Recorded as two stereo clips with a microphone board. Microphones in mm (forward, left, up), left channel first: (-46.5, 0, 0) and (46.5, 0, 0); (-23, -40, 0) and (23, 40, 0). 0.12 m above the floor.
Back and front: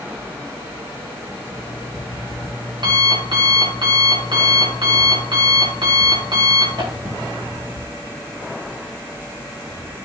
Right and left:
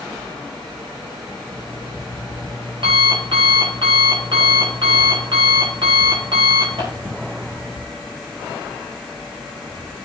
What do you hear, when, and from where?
1.4 s an alarm clock: 35° left, 6 m